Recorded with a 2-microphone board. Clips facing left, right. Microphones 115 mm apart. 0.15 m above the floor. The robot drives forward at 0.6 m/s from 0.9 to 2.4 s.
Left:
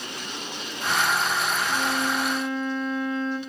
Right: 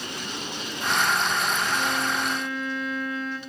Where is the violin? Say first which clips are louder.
Left 1 dB; 25° left (ahead or behind), 1.7 m.